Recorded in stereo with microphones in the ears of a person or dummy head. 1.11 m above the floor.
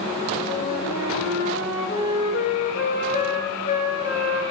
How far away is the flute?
About 3 m.